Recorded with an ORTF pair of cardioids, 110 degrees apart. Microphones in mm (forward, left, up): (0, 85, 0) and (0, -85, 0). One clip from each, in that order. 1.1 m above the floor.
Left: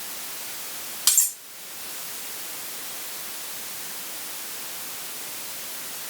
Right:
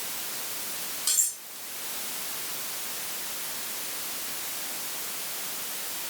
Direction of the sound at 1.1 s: 60° left.